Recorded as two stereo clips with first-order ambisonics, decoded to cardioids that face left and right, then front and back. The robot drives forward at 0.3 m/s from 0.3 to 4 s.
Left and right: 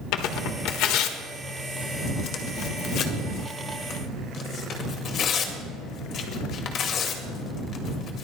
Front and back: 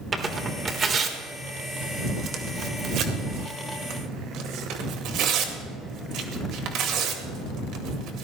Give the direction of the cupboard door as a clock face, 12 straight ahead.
I don't hear a cupboard door.